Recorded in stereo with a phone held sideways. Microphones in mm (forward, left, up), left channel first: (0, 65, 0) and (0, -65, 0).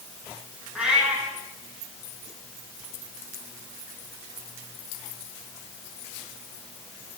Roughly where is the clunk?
I don't hear a clunk.